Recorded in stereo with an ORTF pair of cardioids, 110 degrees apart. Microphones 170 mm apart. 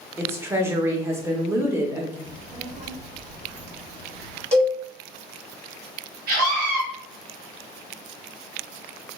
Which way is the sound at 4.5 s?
15° right.